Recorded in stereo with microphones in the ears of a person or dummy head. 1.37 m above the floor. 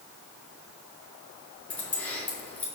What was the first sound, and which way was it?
Keys jangling, 5° left (ahead or behind).